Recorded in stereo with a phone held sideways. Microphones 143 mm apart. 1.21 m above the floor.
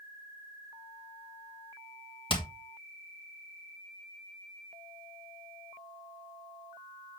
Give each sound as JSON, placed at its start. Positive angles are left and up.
{"t": 2.3, "sound": "hammering", "side_deg": 35, "distance_m": 2.0}